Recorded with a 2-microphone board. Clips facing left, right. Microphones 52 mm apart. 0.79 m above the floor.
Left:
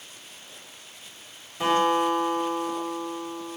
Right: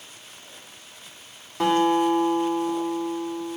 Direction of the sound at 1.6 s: 55° right (ahead or behind).